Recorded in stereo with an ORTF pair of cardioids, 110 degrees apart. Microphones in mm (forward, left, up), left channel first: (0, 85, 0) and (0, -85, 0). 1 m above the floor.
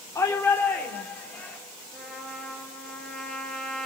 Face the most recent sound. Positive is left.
turn(degrees=5)